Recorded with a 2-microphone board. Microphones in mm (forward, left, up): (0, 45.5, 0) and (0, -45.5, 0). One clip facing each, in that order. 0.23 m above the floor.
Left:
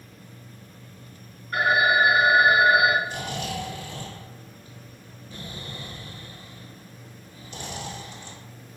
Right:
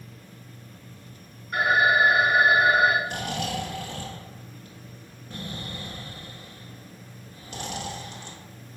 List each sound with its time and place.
1.5 s a phone ringing: 5° right (ahead or behind), 1.2 m
3.0 s snoring: 70° right (ahead or behind), 0.9 m